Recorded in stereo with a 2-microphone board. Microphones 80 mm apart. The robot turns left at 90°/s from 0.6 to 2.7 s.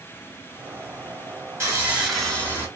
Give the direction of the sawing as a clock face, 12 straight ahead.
4 o'clock.